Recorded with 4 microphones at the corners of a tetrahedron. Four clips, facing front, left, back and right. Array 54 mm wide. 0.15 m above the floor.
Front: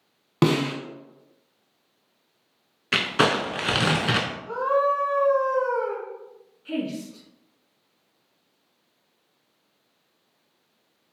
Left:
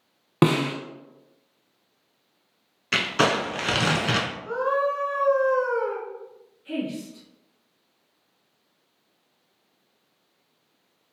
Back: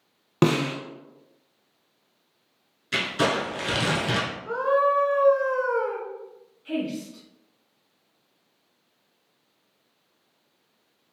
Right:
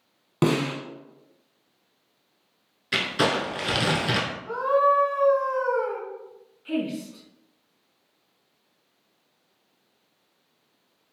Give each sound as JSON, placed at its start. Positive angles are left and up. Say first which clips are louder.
{"t": 0.4, "sound": "a snare drum", "louder": "left 2 dB, even", "azimuth_deg": 100, "distance_m": 0.8}
{"t": 2.9, "sound": "crumpling", "louder": "left 2 dB, front 3 dB", "azimuth_deg": 25, "distance_m": 0.8}
{"t": 4.5, "sound": "a scream", "louder": "right 4 dB, back 1 dB", "azimuth_deg": 150, "distance_m": 1.6}
{"t": 6.7, "sound": "a woman speaking", "louder": "right 2 dB, even", "azimuth_deg": -85, "distance_m": 1.5}